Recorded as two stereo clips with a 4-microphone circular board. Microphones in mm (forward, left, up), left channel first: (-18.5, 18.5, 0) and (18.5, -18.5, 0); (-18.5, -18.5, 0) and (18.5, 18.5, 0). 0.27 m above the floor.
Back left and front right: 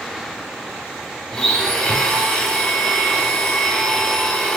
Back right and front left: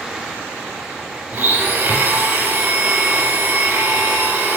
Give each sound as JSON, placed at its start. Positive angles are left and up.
{"t": 1.3, "sound": "a blender", "azimuth_deg": 65, "distance_m": 0.6}